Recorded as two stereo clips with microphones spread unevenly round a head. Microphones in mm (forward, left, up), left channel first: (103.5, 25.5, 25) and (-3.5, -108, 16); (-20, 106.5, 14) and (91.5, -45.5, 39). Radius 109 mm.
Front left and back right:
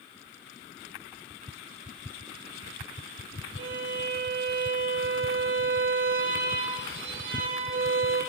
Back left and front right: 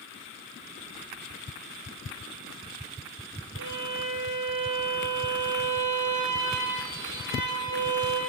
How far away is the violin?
About 7.5 m.